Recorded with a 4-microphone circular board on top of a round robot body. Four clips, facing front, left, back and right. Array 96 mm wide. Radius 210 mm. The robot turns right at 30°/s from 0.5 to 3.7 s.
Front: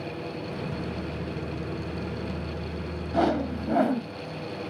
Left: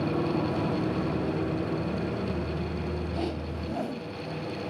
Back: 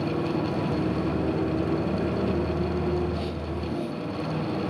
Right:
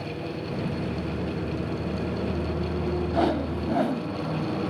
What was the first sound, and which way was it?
A motorcycle, 130° left.